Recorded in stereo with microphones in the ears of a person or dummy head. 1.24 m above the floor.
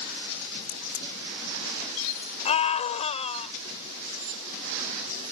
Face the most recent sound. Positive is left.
turn(degrees=35)  # may be behind; listen again after turning